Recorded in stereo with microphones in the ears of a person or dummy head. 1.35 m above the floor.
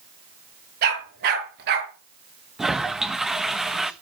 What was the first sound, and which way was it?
A dog barking, 55° right (ahead or behind).